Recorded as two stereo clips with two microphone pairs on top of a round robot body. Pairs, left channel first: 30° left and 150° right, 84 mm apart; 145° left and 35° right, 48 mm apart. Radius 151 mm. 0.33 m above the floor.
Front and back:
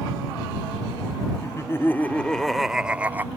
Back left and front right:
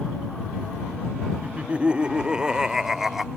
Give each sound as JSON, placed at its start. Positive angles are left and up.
{"t": 1.4, "sound": "laughter", "azimuth_deg": 15}